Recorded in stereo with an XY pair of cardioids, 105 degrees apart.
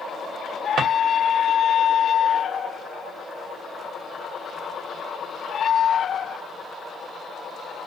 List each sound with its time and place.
0.8 s a drawer: 60° right, 1.0 m